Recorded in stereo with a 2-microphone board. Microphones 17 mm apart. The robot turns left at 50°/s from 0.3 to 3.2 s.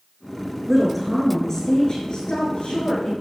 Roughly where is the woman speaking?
Behind.